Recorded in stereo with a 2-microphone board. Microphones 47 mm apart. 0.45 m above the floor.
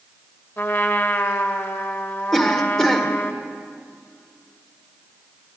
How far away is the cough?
About 1.6 m.